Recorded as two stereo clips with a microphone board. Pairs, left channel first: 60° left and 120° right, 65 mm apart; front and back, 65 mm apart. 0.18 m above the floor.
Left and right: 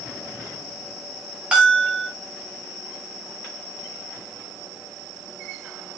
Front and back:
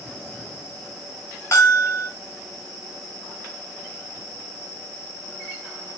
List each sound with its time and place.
1.5 s a bell: 45° right, 4.5 m